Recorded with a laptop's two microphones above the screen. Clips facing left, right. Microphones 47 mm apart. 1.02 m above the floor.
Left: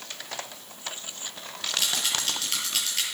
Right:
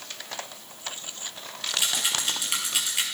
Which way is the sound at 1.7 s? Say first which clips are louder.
Right 1 dB; 15° right (ahead or behind).